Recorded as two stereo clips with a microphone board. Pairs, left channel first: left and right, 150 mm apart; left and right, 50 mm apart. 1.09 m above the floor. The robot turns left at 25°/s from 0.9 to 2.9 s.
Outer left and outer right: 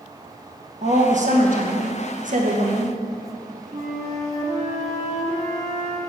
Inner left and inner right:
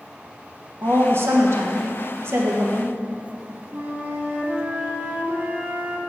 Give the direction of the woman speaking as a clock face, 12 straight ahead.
2 o'clock.